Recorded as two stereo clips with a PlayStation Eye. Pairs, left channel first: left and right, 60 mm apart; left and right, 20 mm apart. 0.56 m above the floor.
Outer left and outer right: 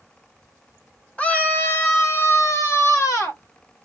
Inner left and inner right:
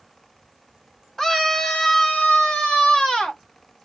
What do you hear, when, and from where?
1.2 s a scream: 20° left (ahead or behind), 1.2 m; by 3.4 s 65° left (ahead or behind), 2 m